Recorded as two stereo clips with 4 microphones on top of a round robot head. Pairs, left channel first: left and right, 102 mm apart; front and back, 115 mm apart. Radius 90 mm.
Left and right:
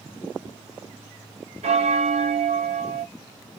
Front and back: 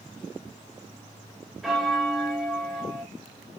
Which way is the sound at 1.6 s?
90° right.